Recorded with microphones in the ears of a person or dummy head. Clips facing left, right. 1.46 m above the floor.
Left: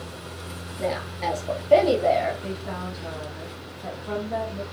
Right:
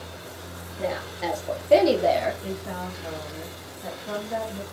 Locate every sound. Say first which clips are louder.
0.8 s a woman speaking: left 1 dB; centre (ahead or behind), 1.1 m; by 2.3 s 60° right (ahead or behind), 0.8 m
2.4 s a woman speaking: even; 15° right (ahead or behind), 1.3 m